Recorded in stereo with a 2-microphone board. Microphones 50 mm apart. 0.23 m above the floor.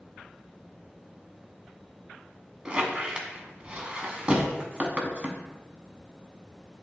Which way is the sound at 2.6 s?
25° right (ahead or behind).